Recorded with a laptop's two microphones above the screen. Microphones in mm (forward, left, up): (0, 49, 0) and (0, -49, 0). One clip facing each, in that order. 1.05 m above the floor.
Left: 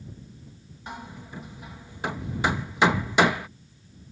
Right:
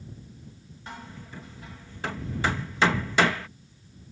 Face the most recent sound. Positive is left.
turn(degrees=20)  # may be behind; listen again after turning